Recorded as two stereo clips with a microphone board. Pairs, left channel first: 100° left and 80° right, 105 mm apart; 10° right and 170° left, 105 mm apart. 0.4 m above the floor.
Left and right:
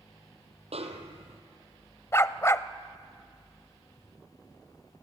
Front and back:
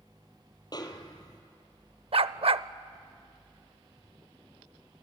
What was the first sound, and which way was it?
A snare drum, 60° right.